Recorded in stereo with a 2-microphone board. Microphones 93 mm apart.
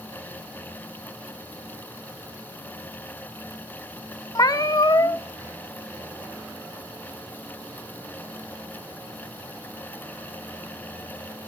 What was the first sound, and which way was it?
A cat meowing, 40° left (ahead or behind).